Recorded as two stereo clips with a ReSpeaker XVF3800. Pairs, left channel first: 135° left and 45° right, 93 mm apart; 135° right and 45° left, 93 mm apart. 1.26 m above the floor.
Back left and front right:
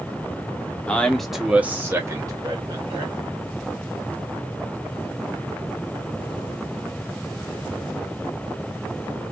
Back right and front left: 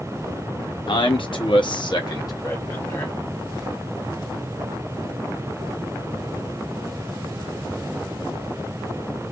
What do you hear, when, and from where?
0.9 s a man speaking: 150° right, 0.8 m; by 3.1 s 70° right, 1.1 m